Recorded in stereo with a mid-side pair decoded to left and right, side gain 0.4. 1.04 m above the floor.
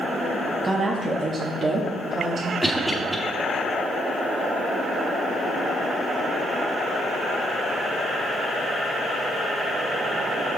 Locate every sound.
0.6 s a woman speaking: 30° right, 1.5 m; by 2.5 s 60° right, 2.5 m
2.6 s a cough: 10° right, 2.0 m